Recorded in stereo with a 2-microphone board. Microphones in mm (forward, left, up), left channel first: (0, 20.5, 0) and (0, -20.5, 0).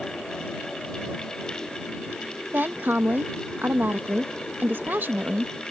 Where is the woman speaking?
55° right (ahead or behind).